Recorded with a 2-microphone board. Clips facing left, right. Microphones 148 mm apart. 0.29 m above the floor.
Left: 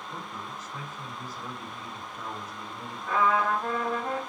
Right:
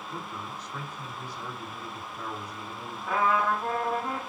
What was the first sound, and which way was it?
A man speaking, 10° left (ahead or behind).